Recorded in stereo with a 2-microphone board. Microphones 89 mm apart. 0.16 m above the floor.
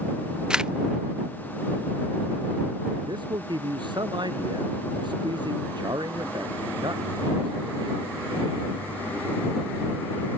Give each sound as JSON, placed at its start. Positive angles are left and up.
{"t": 0.5, "sound": "a camera shutter", "side_deg": -10}
{"t": 3.0, "sound": "a man speaking", "side_deg": -55}